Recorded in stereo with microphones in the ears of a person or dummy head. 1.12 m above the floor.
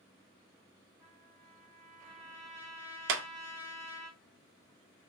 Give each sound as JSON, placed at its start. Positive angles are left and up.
{"t": 1.0, "sound": "a trumpet", "side_deg": -5, "distance_m": 1.4}
{"t": 3.1, "sound": "a clap", "side_deg": -60, "distance_m": 0.6}